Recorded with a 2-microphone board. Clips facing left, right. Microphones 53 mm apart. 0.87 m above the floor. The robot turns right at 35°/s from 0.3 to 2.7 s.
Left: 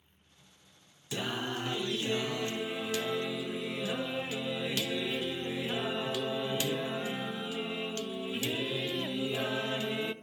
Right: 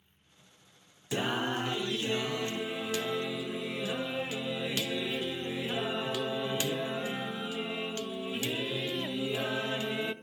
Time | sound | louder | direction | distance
1.1 | singing | right 4 dB | 25° right (ahead or behind) | 0.5 m